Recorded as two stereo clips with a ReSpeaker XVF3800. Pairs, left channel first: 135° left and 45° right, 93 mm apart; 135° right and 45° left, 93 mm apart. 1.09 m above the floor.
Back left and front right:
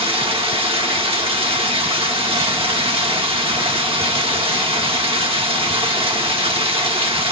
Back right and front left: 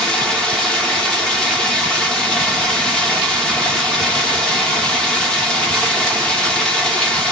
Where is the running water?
55° right, 1.0 m.